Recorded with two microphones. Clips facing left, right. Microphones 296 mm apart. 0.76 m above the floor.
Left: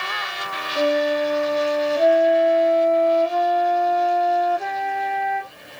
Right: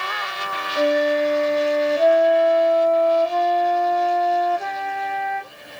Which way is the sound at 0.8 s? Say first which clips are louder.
Right 1 dB; 5° left (ahead or behind).